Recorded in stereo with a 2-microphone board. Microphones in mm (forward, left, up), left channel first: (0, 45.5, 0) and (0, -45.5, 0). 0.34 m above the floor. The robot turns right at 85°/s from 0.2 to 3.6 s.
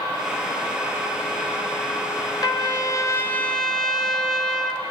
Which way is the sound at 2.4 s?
75° left.